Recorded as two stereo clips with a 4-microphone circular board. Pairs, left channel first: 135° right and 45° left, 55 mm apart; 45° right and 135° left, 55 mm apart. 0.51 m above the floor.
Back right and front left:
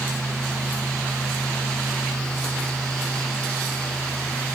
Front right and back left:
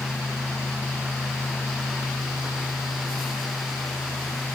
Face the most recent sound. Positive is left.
No sound to turn to.